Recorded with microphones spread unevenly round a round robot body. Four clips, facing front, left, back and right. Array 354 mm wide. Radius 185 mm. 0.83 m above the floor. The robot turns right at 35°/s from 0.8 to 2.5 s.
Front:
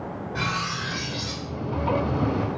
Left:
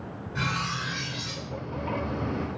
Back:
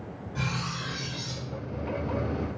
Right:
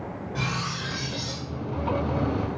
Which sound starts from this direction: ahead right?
Cutlery clinking, at 0.3 s.